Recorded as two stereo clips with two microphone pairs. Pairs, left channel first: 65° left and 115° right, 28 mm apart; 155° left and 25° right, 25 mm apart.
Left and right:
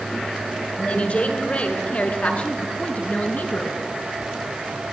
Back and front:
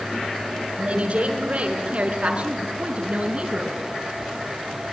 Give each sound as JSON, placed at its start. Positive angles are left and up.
{"t": 0.8, "sound": "a woman speaking", "azimuth_deg": 15, "distance_m": 7.0}